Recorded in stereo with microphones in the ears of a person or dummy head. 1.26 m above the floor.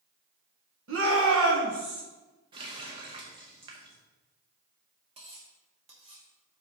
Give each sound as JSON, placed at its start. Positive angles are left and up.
{"t": 0.9, "sound": "a shout", "side_deg": -65, "distance_m": 1.3}
{"t": 2.5, "sound": "a running tap", "side_deg": -25, "distance_m": 0.9}
{"t": 5.2, "sound": "cutlery clinking", "side_deg": -30, "distance_m": 1.3}